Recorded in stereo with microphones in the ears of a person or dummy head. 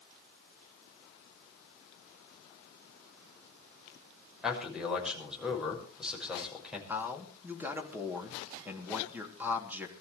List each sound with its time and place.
4.4 s a man speaking: 5° right (ahead or behind), 6 m
6.9 s a man speaking: 10° right (ahead or behind), 3 m